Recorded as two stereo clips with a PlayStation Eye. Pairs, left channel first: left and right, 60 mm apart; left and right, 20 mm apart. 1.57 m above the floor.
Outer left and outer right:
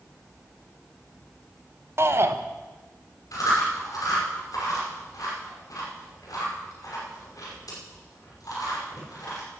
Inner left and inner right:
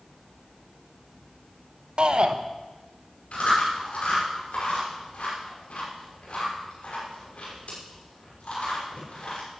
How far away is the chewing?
About 5.5 m.